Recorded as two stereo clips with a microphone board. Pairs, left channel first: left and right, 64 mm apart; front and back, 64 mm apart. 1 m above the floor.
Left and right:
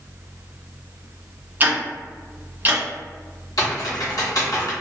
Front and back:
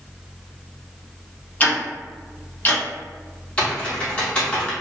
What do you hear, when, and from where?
1.6 s ticking: 50° right, 1.0 m
3.6 s typing on a keyboard: 70° left, 1.0 m